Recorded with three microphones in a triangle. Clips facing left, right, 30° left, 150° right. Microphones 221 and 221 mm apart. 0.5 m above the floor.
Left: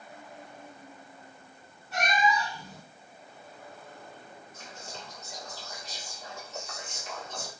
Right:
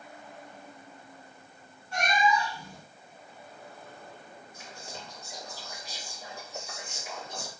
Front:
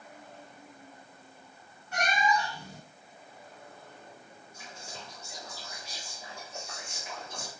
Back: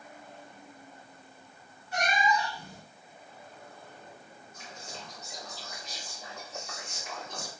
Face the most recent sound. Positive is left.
turn(degrees=-35)